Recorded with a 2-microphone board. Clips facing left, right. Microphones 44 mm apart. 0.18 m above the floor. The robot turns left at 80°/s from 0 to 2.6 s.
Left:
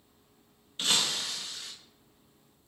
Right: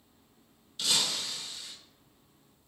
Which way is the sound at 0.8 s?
140° left.